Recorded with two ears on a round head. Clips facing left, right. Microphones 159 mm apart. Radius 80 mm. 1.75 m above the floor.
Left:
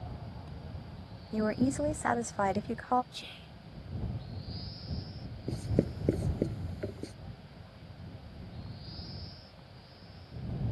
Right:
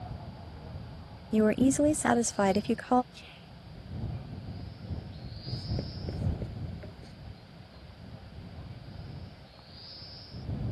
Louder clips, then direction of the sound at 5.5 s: Left 8 dB; 65° left (ahead or behind).